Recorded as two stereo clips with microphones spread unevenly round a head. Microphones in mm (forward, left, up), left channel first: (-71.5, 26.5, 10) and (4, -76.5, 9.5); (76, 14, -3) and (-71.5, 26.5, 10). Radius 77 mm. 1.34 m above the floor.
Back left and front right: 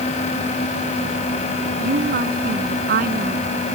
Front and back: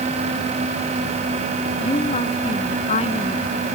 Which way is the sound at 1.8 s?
65° right.